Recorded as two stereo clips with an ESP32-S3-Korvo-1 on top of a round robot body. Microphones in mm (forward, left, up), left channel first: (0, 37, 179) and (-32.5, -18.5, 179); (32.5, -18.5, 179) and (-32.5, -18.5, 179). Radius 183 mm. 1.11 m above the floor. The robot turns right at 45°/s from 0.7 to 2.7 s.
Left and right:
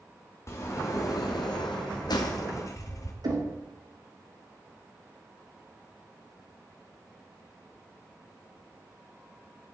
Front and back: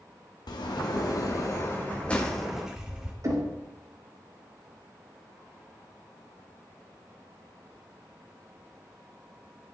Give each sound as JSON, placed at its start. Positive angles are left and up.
{"t": 0.5, "sound": "a sliding door", "azimuth_deg": 10, "distance_m": 1.4}
{"t": 3.2, "sound": "knocking", "azimuth_deg": -140, "distance_m": 3.0}